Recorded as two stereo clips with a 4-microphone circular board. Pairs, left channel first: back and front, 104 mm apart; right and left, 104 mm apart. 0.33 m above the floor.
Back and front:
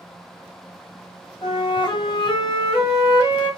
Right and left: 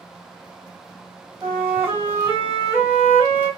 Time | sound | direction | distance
1.4 | a flute | 155° left | 2.5 m